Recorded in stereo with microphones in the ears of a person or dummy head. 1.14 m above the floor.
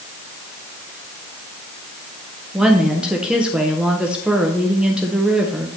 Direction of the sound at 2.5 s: 5° right (ahead or behind).